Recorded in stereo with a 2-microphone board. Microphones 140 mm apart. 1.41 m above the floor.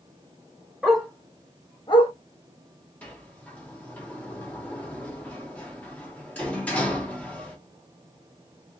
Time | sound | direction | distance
0.8 | a dog barking | 5° right (ahead or behind) | 1.0 m
3.0 | a sliding door | 10° left (ahead or behind) | 1.0 m